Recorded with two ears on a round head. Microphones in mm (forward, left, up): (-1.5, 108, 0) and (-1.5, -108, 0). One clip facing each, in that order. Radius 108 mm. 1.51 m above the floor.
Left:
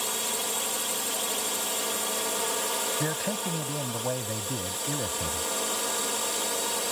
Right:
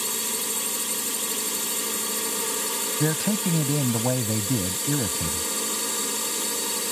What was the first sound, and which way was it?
A drone, 35° right (ahead or behind).